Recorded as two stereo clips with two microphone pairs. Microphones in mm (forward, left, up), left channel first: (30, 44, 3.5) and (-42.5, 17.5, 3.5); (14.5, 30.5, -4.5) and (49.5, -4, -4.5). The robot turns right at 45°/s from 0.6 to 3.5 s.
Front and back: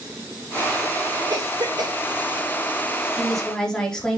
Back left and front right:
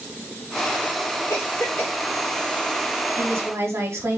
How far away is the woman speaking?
About 3.5 m.